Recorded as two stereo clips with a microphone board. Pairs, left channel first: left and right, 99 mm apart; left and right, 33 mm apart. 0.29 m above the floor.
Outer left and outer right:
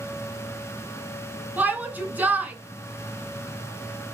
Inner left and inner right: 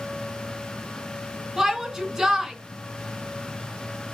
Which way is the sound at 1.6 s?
20° right (ahead or behind).